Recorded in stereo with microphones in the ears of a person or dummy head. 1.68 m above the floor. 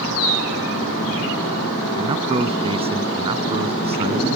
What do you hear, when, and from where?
2.0 s a man speaking: 35° right (ahead or behind)